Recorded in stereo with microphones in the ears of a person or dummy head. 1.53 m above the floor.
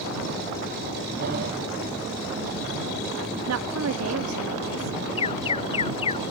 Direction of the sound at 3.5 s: 80° right.